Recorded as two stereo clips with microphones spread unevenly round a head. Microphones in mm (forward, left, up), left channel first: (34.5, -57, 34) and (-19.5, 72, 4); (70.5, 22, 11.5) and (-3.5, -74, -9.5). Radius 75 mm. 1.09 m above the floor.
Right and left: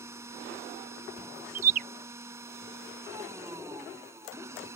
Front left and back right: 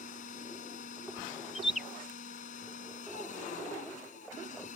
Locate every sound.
0.0 s a machine running: 40° left
1.6 s a bird: 145° left